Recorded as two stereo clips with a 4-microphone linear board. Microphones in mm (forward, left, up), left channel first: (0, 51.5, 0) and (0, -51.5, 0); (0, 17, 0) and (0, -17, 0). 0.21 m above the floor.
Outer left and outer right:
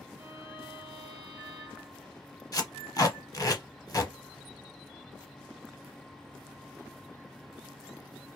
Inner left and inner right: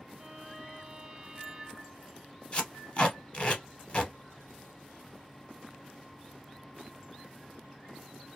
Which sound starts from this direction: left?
Tape being pulled, at 2.5 s.